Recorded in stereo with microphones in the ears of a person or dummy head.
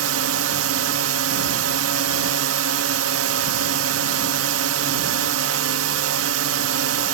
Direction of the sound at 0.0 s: 80° right.